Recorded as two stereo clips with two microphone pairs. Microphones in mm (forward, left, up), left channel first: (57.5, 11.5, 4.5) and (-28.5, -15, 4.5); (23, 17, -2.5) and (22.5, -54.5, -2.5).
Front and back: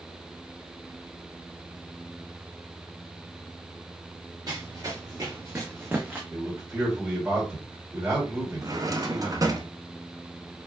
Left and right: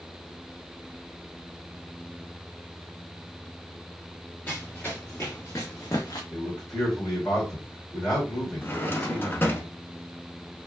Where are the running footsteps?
150° left, 1.6 m; by 6.2 s 120° left, 0.9 m.